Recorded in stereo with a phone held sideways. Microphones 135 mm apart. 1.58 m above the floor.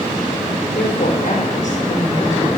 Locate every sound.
0.8 s a woman speaking: 80° left, 5 m; by 2.5 s 55° left (ahead or behind), 4.5 m